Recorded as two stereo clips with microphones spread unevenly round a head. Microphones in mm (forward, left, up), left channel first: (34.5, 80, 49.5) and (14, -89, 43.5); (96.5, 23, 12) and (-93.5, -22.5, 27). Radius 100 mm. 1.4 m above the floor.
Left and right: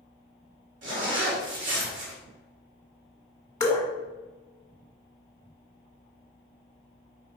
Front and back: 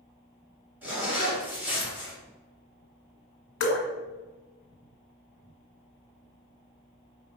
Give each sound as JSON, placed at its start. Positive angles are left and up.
{"t": 0.8, "sound": "a zipper", "azimuth_deg": -85, "distance_m": 1.6}
{"t": 3.6, "sound": "dripping", "azimuth_deg": 20, "distance_m": 1.3}